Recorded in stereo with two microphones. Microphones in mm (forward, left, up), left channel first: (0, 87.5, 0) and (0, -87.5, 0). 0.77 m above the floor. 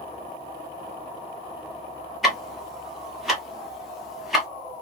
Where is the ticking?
Centre (ahead or behind), 1.5 m.